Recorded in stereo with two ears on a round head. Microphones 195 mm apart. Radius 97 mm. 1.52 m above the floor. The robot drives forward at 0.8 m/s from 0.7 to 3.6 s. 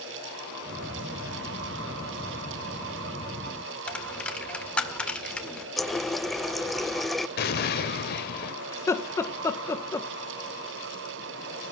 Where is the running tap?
Centre (ahead or behind), 0.6 m.